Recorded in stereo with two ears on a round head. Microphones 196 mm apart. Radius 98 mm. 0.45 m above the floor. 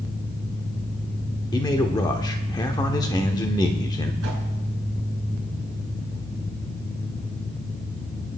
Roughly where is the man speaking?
Centre.